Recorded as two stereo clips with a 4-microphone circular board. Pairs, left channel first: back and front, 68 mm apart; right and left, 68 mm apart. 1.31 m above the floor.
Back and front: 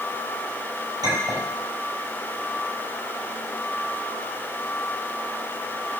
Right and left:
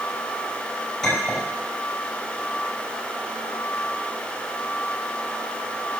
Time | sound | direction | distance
1.0 | a clink | 5° right | 4.5 m